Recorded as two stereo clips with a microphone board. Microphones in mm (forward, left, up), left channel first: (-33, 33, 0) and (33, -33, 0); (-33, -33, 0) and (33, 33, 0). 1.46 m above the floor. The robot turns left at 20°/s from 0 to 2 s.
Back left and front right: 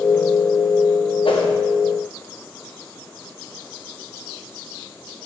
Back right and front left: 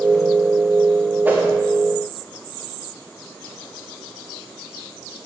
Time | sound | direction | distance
1.2 | a whoosh | 115° left | 1.1 m